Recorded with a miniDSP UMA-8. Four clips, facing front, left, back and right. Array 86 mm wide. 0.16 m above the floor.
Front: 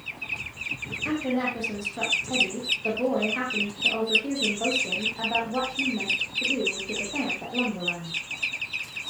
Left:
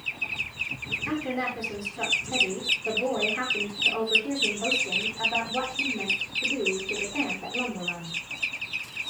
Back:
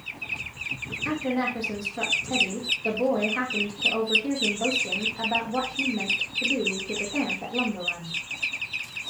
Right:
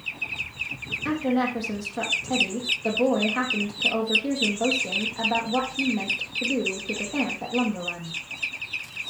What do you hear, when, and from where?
1.1 s a woman speaking: 75° right, 4.5 m